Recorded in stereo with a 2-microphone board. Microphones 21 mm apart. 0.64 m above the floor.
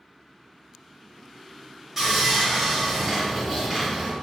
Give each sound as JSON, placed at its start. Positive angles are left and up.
{"t": 2.0, "sound": "sawing", "side_deg": -20, "distance_m": 1.4}